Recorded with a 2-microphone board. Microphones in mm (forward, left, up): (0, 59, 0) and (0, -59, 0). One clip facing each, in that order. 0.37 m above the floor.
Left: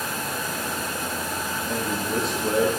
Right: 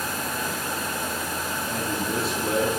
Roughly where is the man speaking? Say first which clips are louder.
Left 2 dB; centre.